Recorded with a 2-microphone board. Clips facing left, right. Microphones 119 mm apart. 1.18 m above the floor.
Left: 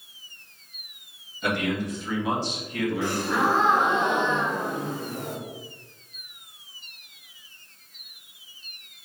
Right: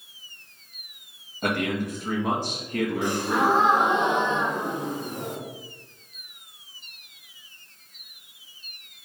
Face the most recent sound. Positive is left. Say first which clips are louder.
# right 2 dB
turn(degrees=-20)  # may be behind; listen again after turning